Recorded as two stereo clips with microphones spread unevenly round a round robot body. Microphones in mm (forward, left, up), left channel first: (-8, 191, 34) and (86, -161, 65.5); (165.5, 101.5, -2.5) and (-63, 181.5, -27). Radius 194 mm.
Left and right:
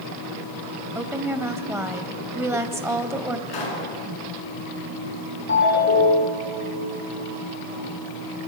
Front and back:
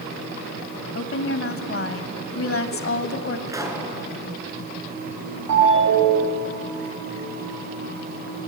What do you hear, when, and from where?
0.9 s a woman speaking: 10° left, 2 m
3.5 s a pop: 85° left, 5.5 m
5.5 s a ringtone: 165° left, 8.5 m